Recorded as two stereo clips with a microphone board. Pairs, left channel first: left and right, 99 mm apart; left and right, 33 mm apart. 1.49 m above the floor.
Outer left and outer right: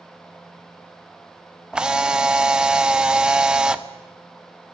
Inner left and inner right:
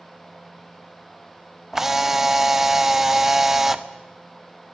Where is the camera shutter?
10° right (ahead or behind), 1.1 m.